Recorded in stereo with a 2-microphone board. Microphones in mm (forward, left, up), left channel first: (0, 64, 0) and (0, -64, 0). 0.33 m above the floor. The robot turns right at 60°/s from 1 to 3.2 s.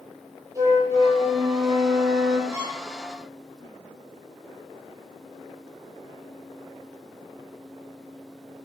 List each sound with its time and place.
0.6 s a flute: 155° right, 8 m; by 2.4 s 70° right, 8 m
2.5 s a violin: 30° right (ahead or behind), 9 m; by 2.8 s 5° right (ahead or behind), 9 m